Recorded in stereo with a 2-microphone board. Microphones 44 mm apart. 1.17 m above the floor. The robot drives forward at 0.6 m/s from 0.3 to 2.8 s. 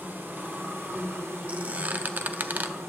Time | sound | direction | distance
0.0 | an insect | 55° right (ahead or behind) | 1.9 m
1.5 | a squeak | 35° right (ahead or behind) | 0.9 m